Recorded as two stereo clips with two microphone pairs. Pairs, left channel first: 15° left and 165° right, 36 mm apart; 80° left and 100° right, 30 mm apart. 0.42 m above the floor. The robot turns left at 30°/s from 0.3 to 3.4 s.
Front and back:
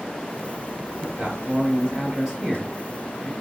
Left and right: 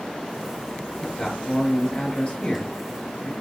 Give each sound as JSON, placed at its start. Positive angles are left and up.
{"t": 1.0, "sound": "a man speaking", "azimuth_deg": 155, "distance_m": 2.0}